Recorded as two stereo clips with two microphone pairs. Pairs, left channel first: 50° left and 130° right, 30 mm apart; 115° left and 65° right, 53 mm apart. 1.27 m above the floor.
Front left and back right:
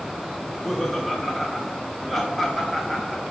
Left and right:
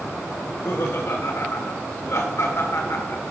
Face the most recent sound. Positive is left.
turn(degrees=145)